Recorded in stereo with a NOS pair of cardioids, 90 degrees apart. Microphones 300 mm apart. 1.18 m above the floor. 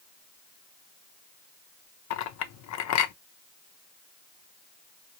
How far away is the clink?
About 0.6 m.